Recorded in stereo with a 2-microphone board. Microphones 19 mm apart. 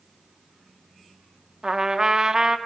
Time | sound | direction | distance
1.6 | a trumpet | 35° right (ahead or behind) | 0.9 m